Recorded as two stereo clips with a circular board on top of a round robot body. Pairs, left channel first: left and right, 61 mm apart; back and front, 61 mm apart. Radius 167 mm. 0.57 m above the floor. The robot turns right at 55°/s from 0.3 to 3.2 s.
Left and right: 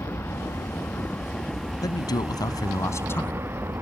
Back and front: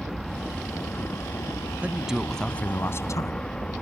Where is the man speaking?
70° left; by 3.4 s 145° left.